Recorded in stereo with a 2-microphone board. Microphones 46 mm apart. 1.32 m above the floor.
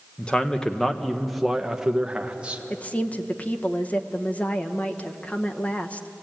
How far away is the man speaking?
About 1.4 m.